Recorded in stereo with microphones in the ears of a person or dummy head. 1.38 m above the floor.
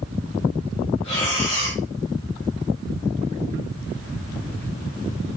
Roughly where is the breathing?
Left.